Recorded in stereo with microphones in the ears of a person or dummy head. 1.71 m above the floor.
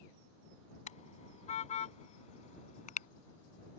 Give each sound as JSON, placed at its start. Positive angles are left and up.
{"t": 0.9, "sound": "a car horn", "side_deg": 40}